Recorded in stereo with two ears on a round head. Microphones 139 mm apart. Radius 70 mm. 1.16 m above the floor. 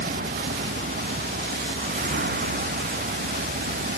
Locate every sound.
0.0 s a vehicle: 60° right (ahead or behind)